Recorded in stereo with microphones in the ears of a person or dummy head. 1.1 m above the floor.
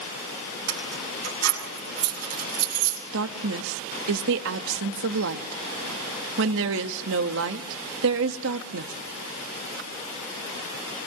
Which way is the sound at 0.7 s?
85° right.